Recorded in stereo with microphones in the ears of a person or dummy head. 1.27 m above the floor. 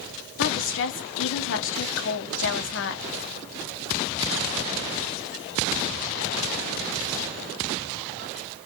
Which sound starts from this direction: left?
A woman speaking, at 0.4 s.